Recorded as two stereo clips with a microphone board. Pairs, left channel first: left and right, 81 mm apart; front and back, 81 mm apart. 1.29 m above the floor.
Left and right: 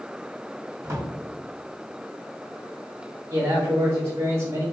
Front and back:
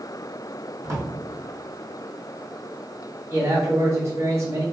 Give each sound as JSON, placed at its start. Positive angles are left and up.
{"t": 0.8, "sound": "a drawer", "azimuth_deg": -130, "distance_m": 1.1}
{"t": 3.3, "sound": "a man speaking", "azimuth_deg": -125, "distance_m": 1.1}